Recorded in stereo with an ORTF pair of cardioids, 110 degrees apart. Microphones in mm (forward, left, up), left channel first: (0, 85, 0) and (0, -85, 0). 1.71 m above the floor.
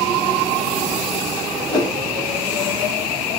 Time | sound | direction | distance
1.7 | a whoosh | 25° left | 1.0 m